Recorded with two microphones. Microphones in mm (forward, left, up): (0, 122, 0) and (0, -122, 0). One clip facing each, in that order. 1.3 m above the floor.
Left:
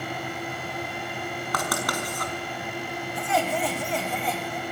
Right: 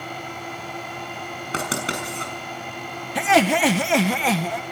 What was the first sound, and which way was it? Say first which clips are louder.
Writing: right 3 dB; 25° right (ahead or behind).